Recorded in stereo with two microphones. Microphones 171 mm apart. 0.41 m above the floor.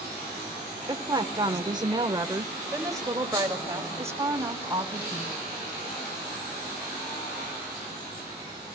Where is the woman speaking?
25° right (ahead or behind), 1.2 m; by 5.3 s 15° right (ahead or behind), 3 m.